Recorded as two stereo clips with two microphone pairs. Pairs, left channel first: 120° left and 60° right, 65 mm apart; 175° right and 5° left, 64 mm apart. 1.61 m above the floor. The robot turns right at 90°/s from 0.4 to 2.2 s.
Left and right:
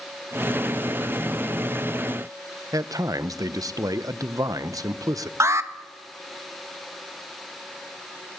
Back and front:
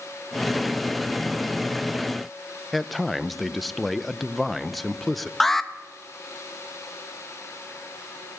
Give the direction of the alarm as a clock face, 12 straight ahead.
3 o'clock.